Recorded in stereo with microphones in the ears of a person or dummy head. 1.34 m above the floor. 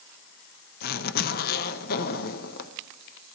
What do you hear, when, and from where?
0.8 s a zipper: 45° left (ahead or behind), 0.7 m